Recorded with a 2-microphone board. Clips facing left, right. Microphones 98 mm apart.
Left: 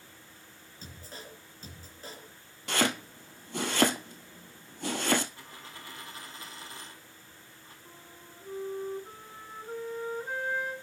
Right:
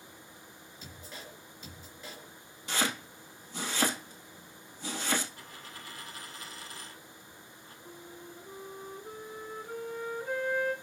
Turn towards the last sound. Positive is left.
turn(degrees=20)  # may be behind; listen again after turning